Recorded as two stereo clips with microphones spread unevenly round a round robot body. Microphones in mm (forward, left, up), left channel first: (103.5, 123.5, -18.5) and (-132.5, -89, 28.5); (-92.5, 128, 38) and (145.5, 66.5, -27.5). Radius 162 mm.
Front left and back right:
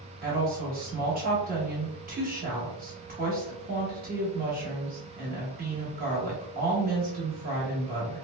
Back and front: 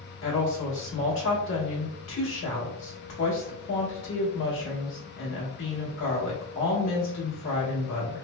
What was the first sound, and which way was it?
A woman speaking, 170° left.